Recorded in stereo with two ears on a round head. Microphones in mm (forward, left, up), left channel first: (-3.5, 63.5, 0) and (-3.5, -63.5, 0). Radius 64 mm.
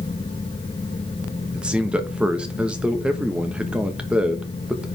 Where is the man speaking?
5° right (ahead or behind), 1.3 m.